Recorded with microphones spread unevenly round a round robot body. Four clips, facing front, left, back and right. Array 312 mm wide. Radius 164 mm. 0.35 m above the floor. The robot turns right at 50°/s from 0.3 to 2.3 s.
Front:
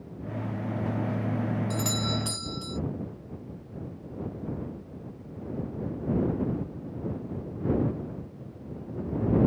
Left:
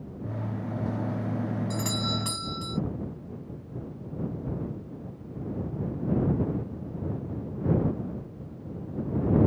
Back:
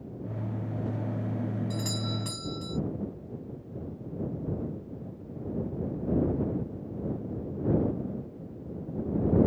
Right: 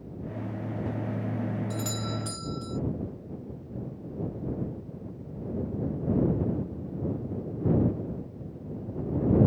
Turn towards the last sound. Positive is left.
turn(degrees=70)